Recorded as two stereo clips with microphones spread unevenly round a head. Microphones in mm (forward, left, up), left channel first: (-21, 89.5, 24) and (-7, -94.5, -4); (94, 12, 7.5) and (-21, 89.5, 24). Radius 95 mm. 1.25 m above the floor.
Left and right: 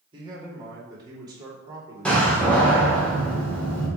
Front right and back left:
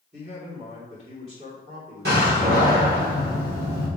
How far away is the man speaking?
About 3 m.